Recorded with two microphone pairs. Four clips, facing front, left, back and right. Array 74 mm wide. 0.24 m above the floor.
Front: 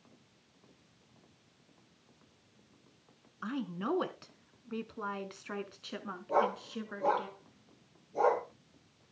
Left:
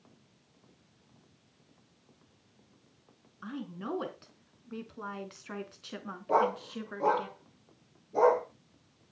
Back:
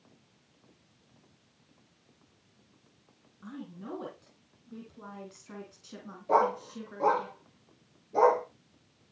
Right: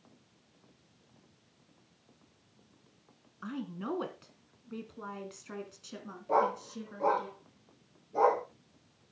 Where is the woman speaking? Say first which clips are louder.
Right 1 dB, front 7 dB; 5° left, 3 m; by 7.3 s 50° left, 3 m.